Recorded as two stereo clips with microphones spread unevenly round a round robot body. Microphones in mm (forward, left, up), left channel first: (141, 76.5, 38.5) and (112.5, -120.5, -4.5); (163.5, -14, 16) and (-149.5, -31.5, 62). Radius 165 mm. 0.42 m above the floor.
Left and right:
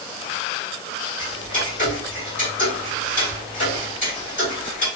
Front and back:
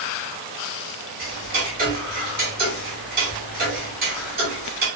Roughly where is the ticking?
Behind left.